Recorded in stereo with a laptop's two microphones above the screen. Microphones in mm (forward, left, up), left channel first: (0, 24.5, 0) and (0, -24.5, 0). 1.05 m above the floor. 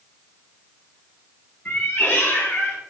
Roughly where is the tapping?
I don't hear tapping.